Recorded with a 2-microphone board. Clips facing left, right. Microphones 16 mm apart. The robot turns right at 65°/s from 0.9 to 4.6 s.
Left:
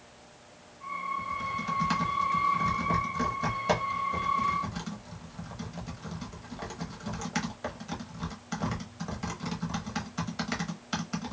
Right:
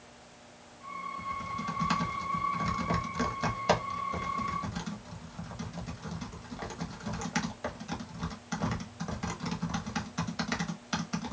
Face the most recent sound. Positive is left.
turn(degrees=0)  # may be behind; listen again after turning